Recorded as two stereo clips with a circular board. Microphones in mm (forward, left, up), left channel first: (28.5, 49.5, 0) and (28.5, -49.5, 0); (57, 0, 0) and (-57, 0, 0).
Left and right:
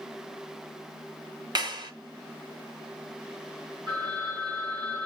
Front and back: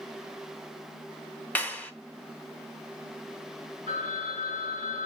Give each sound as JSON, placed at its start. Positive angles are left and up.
{"t": 1.6, "sound": "a clap", "azimuth_deg": -70, "distance_m": 1.1}
{"t": 3.9, "sound": "a phone ringing", "azimuth_deg": -135, "distance_m": 4.5}